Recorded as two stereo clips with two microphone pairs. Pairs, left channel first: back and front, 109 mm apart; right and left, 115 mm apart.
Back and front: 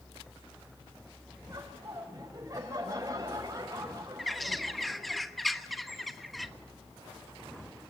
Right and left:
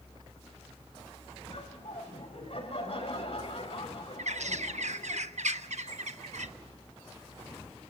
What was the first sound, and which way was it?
Laughter, 60° right.